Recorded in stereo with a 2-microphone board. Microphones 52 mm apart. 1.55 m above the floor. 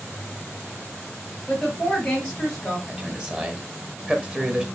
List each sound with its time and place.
1.5 s a woman speaking: 20° left (ahead or behind), 2.5 m
2.9 s a man speaking: 20° right (ahead or behind), 1.0 m